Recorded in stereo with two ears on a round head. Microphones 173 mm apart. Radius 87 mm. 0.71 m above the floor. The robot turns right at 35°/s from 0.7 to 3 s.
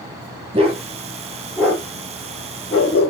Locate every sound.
0.5 s a dog barking: 30° right (ahead or behind), 5 m; by 3.1 s 50° left (ahead or behind), 5 m